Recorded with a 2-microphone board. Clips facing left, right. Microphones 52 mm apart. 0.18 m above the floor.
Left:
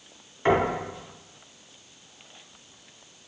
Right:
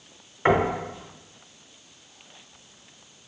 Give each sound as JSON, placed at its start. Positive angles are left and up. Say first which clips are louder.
{"t": 0.5, "sound": "knocking", "louder": "right 1 dB", "side_deg": -20, "distance_m": 1.1}